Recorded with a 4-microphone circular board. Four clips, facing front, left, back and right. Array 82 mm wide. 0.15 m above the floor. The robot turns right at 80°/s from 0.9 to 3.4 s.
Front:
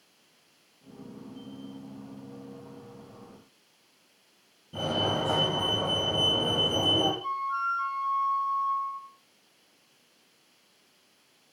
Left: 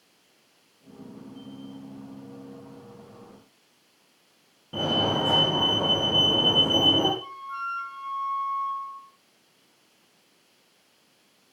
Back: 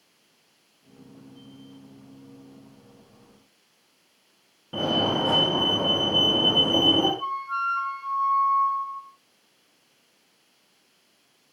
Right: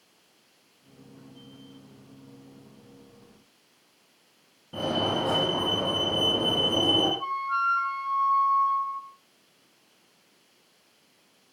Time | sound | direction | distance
4.7 | a fire alarm | 175° left | 8 m
7.2 | a flute | 145° right | 3.5 m